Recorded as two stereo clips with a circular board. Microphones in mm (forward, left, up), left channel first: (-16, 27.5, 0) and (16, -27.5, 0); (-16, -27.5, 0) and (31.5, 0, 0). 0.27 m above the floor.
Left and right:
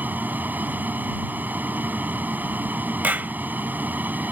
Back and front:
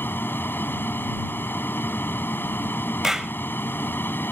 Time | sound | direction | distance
0.0 | an aircraft | 115° right | ?
3.0 | a clap | 45° right | ?